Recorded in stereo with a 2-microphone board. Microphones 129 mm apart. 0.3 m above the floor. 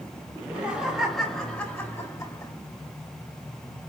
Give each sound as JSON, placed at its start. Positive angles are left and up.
{"t": 0.3, "sound": "laughter", "side_deg": -15, "distance_m": 1.7}